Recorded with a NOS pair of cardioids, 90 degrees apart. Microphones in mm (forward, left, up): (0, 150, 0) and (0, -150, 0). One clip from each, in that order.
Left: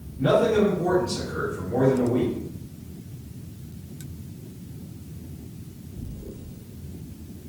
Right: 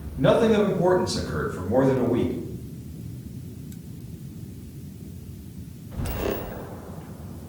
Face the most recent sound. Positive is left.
turn(degrees=-60)